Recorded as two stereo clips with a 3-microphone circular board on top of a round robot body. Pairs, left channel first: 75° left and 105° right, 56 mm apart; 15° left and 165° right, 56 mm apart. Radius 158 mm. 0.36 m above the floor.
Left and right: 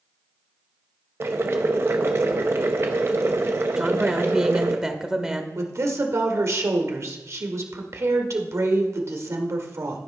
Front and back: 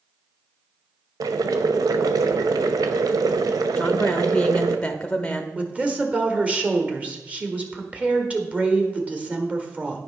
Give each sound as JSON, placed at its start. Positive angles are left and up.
{"t": 1.2, "sound": "boiling", "azimuth_deg": -155, "distance_m": 0.5}
{"t": 3.8, "sound": "a woman speaking", "azimuth_deg": -45, "distance_m": 1.0}
{"t": 5.5, "sound": "a woman speaking", "azimuth_deg": -100, "distance_m": 1.6}